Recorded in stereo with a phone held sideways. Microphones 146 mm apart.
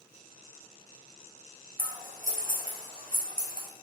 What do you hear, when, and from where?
1.8 s scissors: 70° right (ahead or behind), 0.9 m